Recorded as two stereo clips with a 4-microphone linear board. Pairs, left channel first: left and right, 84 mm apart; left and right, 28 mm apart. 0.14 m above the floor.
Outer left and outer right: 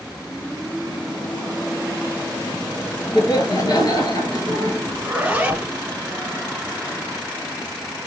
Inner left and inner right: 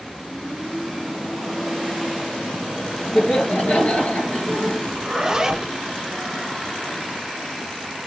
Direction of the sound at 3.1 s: 55° left (ahead or behind).